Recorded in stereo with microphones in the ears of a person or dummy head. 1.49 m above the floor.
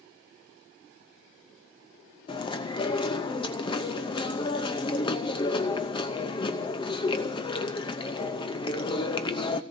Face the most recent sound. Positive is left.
turn(degrees=20)  # may be behind; listen again after turning